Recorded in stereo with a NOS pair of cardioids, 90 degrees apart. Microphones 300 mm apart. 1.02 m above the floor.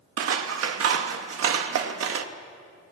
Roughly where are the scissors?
Ahead right.